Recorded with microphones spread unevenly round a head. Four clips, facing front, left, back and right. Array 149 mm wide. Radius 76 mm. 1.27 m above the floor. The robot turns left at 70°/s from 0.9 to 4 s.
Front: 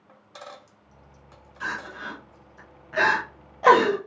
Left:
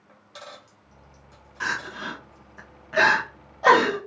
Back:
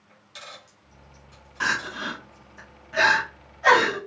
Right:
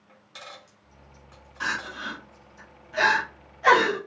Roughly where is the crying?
Behind.